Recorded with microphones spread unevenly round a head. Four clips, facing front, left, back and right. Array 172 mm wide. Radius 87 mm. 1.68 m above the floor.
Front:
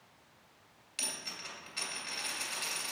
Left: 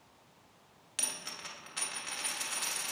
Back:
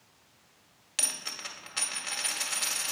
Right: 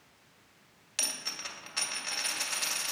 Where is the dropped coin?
160° right, 1.8 m.